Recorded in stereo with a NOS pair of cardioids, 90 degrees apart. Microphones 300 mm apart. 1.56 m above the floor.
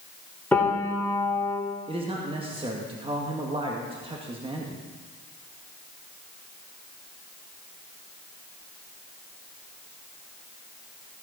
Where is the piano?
5° left, 4.5 m.